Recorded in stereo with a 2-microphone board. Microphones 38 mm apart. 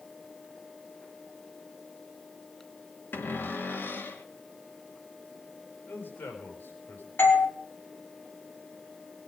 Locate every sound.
3.1 s a cupboard door: 80° left, 2.5 m
5.9 s a man speaking: 80° left, 5 m
7.2 s a doorbell: 85° left, 4 m